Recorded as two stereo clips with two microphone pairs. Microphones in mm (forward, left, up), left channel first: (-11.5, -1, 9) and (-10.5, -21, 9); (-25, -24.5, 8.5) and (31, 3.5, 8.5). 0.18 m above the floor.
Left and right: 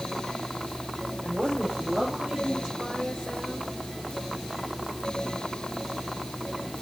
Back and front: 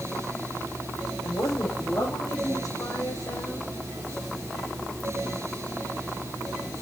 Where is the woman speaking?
120° right, 8 m; by 3.7 s 140° right, 8 m.